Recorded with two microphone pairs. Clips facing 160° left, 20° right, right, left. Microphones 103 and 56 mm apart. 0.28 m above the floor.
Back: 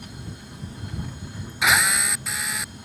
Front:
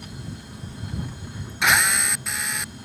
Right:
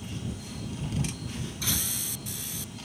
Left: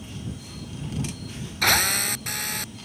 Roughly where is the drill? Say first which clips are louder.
Even, left 17 dB; left.